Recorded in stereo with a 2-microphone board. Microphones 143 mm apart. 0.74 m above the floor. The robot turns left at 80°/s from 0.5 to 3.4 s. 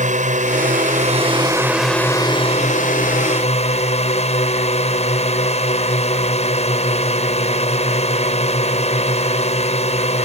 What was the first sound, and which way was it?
A drone, 70° right.